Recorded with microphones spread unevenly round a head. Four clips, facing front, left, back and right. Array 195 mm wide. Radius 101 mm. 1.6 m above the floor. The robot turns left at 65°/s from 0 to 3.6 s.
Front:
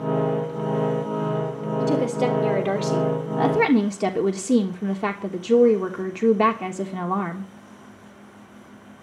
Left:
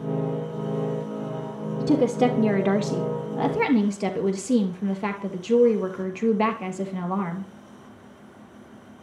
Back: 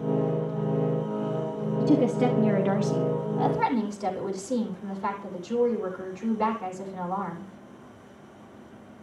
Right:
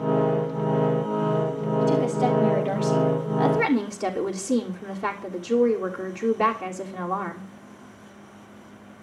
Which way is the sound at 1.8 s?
130° left.